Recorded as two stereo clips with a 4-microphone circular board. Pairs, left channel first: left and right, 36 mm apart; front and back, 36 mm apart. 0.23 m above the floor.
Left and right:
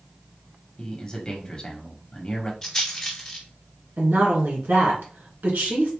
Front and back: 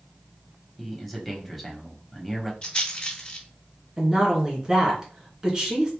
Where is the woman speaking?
110° right, 2.5 m.